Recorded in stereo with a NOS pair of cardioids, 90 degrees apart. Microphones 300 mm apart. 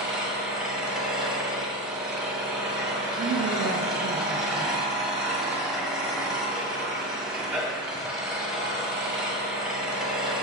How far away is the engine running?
About 1.3 m.